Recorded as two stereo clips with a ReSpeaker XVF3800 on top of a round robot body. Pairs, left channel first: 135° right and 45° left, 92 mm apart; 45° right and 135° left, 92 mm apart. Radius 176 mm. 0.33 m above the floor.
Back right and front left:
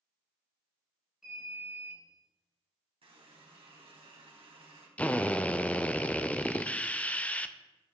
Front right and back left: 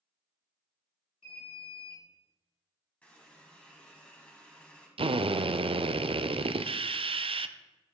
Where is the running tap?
30° left, 3 m.